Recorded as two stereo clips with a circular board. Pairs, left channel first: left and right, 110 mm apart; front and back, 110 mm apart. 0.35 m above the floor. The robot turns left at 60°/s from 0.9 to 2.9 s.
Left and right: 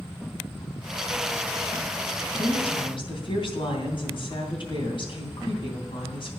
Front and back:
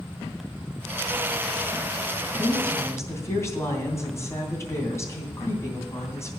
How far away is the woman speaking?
About 3 m.